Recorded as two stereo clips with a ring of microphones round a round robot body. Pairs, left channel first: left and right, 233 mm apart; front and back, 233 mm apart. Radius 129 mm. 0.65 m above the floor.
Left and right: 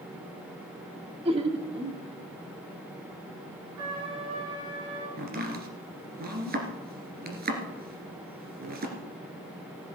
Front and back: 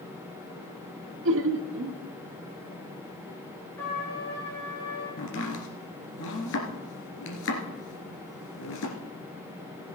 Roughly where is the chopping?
Ahead right.